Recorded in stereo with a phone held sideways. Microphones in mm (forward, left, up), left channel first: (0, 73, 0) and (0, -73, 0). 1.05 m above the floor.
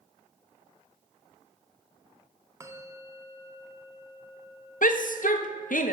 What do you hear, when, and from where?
2.6 s a bell: 20° right (ahead or behind), 0.6 m
4.8 s a shout: 65° left (ahead or behind), 0.7 m